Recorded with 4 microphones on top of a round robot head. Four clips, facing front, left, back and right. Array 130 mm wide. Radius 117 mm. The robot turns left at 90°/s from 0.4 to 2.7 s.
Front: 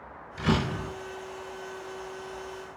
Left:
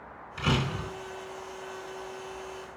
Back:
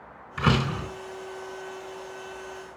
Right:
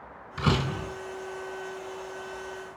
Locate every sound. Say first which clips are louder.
0.4 s a door slam: right 2 dB, back 2 dB; 155° right, 3.5 m; by 0.9 s 160° left, 3.5 m